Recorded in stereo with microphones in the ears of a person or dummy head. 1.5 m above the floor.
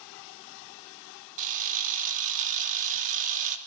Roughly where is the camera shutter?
Right.